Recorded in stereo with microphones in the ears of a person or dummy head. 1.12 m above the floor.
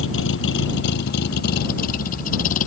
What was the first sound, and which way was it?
A vehicle, 75° left (ahead or behind).